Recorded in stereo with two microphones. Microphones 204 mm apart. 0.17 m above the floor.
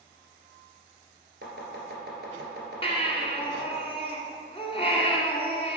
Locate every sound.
1.4 s chopping: 55° right (ahead or behind), 2 m
2.8 s a baby crying: 30° left (ahead or behind), 1.2 m